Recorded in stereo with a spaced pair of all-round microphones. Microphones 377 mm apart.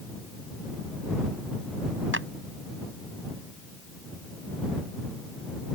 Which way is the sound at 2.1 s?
35° right (ahead or behind).